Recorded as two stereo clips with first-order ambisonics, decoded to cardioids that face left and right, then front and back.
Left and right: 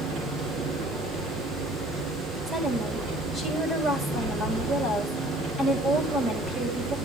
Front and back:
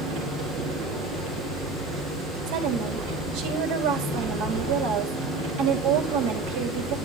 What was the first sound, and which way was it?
An engine running, 140° right.